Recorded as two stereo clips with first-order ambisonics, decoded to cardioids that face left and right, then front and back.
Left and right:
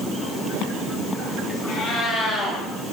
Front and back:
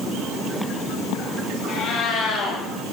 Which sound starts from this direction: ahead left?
A cat meowing, at 1.7 s.